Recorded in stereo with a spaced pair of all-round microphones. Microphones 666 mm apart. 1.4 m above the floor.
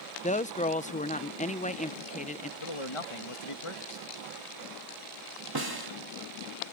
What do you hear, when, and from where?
0.2 s a woman speaking: 10° left (ahead or behind)
2.6 s a man speaking: 50° left (ahead or behind)
5.5 s a snare drum: 35° right (ahead or behind)